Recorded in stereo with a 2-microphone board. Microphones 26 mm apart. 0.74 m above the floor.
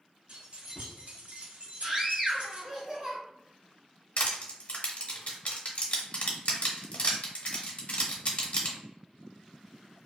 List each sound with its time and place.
0.3 s keys jangling: 45° right (ahead or behind), 1.1 m
1.8 s a scream: 35° right (ahead or behind), 1.2 m
4.2 s crushing: 60° left (ahead or behind), 0.7 m